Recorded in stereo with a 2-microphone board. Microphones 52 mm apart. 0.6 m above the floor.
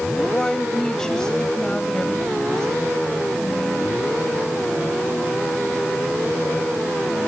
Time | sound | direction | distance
0.2 | a woman speaking | 15° left (ahead or behind) | ?